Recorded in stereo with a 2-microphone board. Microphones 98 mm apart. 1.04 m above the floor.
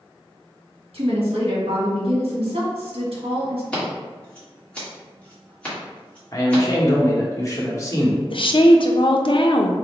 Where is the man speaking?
35° left (ahead or behind), 1.1 m.